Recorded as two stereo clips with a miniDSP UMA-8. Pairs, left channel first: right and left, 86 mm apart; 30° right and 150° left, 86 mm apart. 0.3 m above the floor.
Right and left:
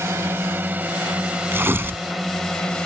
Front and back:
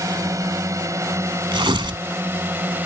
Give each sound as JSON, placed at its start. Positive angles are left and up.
{"t": 0.0, "sound": "a drone", "azimuth_deg": 130}
{"t": 1.5, "sound": "tearing paper", "azimuth_deg": 150}